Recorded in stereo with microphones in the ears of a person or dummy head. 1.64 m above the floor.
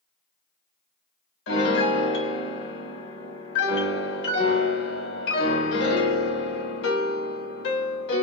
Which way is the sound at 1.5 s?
65° left (ahead or behind).